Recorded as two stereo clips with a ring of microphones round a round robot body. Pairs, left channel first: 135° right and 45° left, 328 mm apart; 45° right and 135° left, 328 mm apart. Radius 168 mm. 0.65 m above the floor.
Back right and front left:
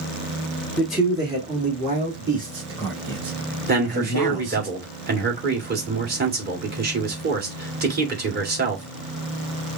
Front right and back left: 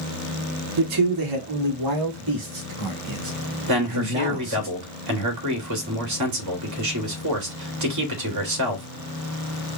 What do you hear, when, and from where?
0.8 s a man speaking: 140° left, 0.8 m; by 4.7 s 95° left, 3.5 m
3.7 s a man speaking: 105° left, 2 m